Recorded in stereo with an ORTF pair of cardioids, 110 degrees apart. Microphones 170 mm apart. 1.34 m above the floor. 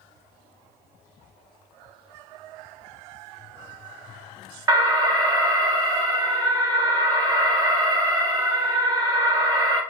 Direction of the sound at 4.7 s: 20° right.